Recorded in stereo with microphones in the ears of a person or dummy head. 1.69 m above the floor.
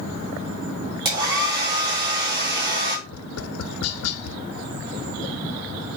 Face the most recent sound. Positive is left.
turn(degrees=75)  # may be behind; listen again after turning